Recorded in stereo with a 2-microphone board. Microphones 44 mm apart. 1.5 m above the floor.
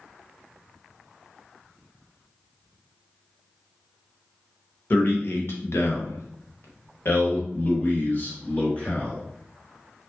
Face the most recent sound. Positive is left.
turn(degrees=35)  # may be behind; listen again after turning